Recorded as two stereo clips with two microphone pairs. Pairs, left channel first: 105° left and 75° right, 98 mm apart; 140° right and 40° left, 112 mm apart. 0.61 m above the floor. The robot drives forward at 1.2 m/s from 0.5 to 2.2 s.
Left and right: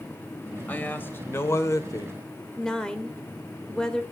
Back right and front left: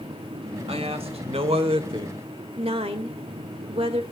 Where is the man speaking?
35° left, 3 m; by 2.2 s 65° left, 2 m.